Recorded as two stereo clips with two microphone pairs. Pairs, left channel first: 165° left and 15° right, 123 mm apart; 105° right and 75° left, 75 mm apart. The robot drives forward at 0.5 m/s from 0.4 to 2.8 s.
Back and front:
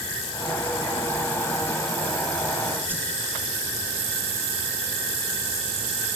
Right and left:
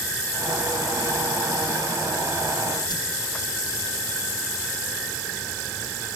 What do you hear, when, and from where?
2.9 s a whoosh: 85° right, 4 m